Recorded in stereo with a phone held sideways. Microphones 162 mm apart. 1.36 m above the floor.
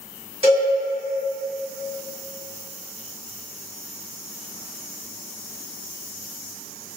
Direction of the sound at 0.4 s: 35° right (ahead or behind).